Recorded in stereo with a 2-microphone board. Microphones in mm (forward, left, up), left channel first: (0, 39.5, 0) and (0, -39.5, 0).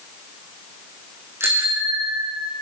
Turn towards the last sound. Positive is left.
turn(degrees=-40)  # may be behind; listen again after turning